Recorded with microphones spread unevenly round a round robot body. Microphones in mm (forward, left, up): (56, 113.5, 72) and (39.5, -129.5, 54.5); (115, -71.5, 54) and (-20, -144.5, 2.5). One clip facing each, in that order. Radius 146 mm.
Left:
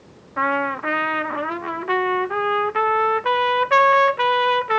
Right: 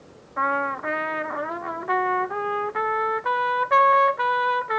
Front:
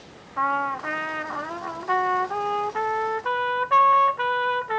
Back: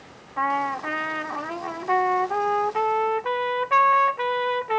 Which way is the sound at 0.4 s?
140° left.